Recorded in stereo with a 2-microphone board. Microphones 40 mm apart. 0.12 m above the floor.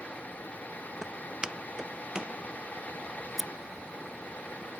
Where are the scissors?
5° right (ahead or behind).